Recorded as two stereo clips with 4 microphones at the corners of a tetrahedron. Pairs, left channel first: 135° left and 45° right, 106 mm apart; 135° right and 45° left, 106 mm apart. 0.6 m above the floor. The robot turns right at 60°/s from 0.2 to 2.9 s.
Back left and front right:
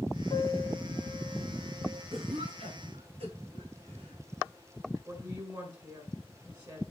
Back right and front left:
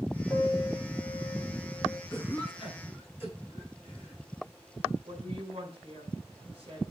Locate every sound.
0.3 s a piano: 155° left, 3 m; by 2.0 s 100° right, 3 m
2.1 s a cough: 70° right, 5.5 m; by 4.2 s 25° right, 5.5 m
5.0 s a woman speaking: 15° left, 6 m